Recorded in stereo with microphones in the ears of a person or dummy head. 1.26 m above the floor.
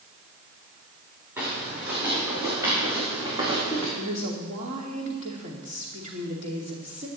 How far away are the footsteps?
About 6 m.